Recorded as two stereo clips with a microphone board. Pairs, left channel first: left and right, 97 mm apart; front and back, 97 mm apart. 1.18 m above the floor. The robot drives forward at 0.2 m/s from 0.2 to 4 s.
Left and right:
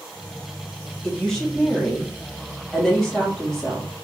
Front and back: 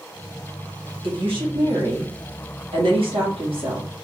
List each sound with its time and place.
1.0 s a woman speaking: 170° left, 2.0 m; by 4.0 s 175° left, 2.5 m